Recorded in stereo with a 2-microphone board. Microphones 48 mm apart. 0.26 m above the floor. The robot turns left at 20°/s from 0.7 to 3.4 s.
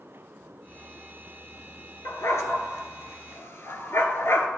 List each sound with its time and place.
2.0 s a dog barking: 85° left, 0.9 m; by 4.5 s 60° left (ahead or behind), 0.9 m